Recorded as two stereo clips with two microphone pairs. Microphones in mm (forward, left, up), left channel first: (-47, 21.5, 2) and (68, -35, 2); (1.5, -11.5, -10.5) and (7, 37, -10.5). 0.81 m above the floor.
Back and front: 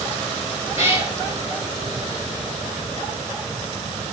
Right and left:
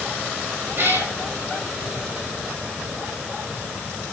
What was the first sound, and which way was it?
A cat meowing, 45° left.